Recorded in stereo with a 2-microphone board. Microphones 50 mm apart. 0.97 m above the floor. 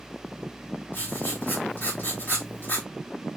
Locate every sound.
0.9 s writing: 45° left (ahead or behind), 3 m